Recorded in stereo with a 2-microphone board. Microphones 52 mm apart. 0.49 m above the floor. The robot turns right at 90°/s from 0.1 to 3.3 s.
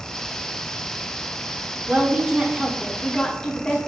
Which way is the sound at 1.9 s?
25° right (ahead or behind).